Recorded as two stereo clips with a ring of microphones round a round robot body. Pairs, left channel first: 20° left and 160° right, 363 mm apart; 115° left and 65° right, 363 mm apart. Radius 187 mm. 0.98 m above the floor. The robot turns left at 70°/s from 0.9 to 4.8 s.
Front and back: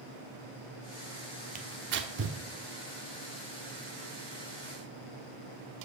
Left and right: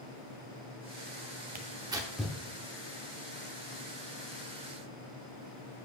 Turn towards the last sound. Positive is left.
turn(degrees=20)